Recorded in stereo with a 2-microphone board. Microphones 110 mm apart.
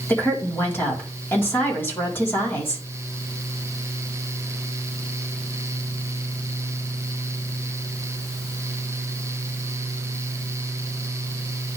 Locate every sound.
0.1 s a woman speaking: 20° left (ahead or behind), 3.5 m